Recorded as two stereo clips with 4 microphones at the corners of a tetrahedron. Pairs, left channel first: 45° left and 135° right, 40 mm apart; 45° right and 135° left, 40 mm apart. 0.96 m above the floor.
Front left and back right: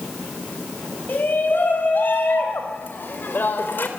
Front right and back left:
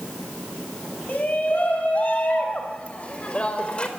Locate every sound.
1.1 s a shout: 10° left, 5.5 m; by 3.9 s 20° left, 3 m